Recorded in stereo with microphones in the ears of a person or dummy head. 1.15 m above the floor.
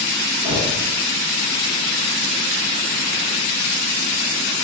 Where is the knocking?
65° right (ahead or behind), 1.6 m.